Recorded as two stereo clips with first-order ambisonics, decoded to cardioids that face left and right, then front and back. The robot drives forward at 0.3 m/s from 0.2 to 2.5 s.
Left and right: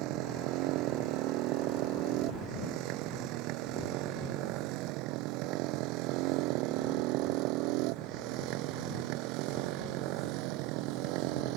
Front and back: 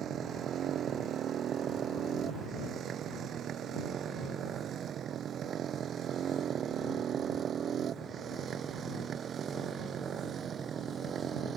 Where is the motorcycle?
125° right; by 11.6 s 115° right.